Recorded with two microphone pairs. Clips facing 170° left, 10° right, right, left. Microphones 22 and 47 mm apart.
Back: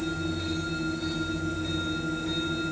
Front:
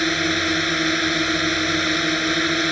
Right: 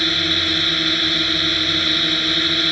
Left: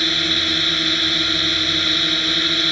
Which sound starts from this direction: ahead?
A drone, at 0.0 s.